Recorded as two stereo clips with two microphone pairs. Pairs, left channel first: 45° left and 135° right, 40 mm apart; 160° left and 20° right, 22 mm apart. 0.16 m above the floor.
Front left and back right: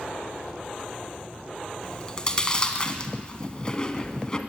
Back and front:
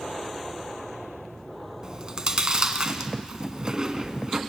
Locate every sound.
1.8 s chewing: 5° right, 1.9 m